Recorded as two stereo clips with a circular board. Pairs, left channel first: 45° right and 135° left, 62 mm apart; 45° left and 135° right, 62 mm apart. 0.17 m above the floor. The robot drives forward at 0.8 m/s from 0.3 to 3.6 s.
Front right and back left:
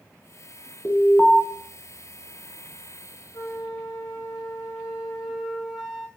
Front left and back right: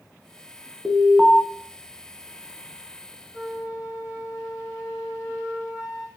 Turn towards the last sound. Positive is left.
turn(degrees=-55)